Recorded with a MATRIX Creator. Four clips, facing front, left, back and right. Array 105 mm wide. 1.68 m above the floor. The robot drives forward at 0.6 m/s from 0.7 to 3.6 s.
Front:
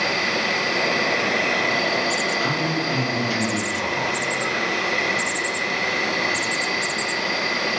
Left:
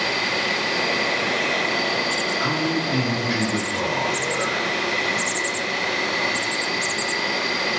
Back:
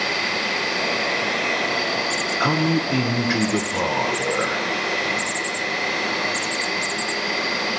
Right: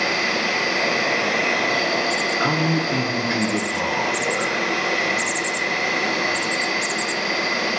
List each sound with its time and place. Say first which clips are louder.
0.0 s an insect: right 2 dB, front 2 dB; 80° right, 4 m; by 7.8 s 105° right, 4 m
2.4 s a man speaking: right 3 dB, back 3 dB; 155° right, 0.7 m; by 4.6 s 170° right, 1.3 m